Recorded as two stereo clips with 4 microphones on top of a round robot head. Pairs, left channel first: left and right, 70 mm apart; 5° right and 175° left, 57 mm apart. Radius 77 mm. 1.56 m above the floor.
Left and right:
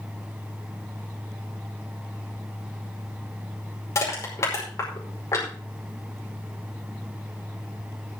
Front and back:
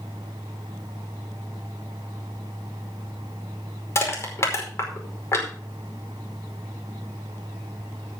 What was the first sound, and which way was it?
Crushing, 40° left.